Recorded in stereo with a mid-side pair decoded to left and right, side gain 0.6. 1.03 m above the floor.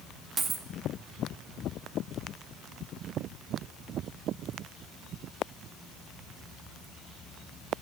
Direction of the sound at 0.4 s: 35° right.